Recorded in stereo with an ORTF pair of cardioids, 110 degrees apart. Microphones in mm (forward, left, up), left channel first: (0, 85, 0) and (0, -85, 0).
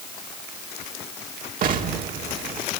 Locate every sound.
1.6 s an explosion: 55° right, 2 m